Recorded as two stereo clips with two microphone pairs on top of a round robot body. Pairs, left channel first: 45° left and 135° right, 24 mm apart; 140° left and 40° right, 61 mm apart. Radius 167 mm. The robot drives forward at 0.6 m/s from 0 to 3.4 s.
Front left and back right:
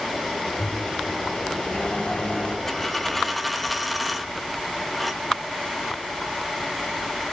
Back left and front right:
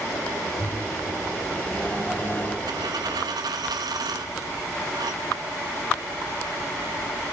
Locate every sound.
0.6 s a microwave: 70° left, 4.5 m; by 2.6 s 85° left, 4.5 m
2.7 s a dropped coin: 30° right, 1.3 m; by 7.2 s 45° right, 1.0 m